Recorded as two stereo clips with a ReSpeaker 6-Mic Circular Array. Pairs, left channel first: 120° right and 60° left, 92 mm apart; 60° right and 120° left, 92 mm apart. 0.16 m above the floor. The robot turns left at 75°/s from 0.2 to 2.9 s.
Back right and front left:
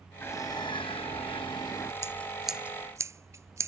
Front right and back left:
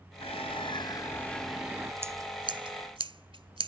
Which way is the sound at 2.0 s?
Straight behind.